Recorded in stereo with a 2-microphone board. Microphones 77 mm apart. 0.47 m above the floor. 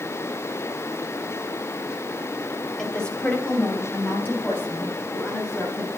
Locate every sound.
2.8 s a woman speaking: 5° left (ahead or behind), 2.5 m; by 5.9 s 35° left (ahead or behind), 6 m